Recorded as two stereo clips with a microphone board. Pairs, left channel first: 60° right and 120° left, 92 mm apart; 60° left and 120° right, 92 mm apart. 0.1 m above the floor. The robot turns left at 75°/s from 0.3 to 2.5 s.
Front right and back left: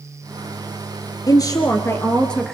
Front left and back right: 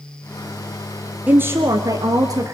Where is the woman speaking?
55° right, 1.6 m; by 2.5 s 150° right, 1.6 m.